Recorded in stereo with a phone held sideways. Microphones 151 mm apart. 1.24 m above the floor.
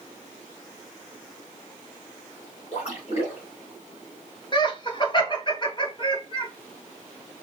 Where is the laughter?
35° left (ahead or behind), 1.7 m.